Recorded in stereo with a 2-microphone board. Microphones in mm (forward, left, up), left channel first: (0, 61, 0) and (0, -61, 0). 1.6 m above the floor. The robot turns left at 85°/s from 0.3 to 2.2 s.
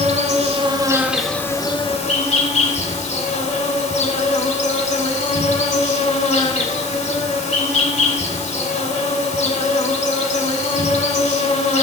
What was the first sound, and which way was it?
An insect, 100° right.